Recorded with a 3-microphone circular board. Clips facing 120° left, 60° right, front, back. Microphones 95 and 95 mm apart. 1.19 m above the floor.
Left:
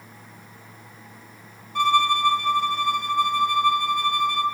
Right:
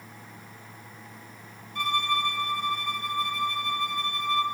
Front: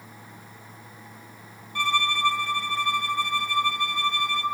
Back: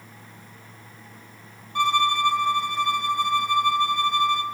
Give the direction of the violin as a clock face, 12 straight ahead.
8 o'clock.